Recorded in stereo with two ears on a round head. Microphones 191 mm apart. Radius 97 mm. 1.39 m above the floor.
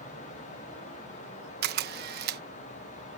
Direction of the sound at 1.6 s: 45° right (ahead or behind).